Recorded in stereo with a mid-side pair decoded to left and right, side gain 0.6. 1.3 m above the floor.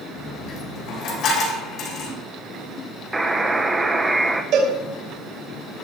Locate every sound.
0.2 s a dropped coin: 55° left, 5 m
3.1 s a buzzer: 10° right, 0.9 m
4.5 s a cowbell: 60° right, 3 m